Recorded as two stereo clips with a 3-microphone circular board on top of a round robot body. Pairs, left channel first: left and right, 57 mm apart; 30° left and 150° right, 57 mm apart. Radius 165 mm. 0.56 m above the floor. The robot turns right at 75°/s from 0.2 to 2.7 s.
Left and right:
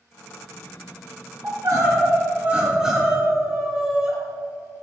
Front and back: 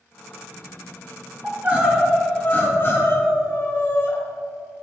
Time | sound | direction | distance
1.4 | crying | 105° right | 4 m